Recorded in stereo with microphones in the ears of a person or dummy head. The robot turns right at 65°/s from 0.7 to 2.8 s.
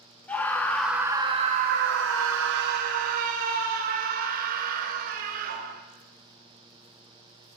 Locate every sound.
0.3 s a scream: 170° left, 0.5 m; by 5.8 s 50° right, 0.5 m